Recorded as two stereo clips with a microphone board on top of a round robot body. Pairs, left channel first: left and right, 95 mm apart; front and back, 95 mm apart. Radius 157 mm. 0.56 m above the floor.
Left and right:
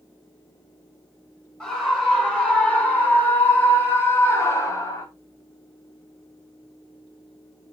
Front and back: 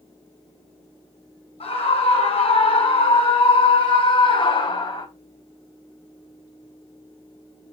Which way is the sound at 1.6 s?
10° left.